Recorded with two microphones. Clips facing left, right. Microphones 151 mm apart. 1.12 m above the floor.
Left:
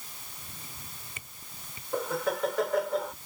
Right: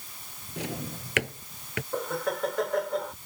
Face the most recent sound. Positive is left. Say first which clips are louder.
# left 1 dB
turn(degrees=0)  # may be behind; listen again after turning